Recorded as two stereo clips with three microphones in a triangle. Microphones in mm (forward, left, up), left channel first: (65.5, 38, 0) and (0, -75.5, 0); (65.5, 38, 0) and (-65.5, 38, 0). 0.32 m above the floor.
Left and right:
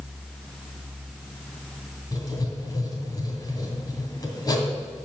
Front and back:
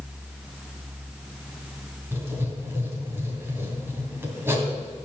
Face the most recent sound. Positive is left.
turn(degrees=110)